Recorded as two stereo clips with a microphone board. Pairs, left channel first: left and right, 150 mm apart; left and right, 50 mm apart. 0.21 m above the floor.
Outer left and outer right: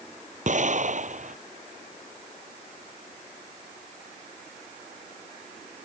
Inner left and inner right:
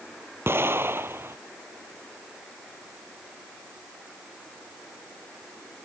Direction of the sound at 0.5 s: 50° right (ahead or behind).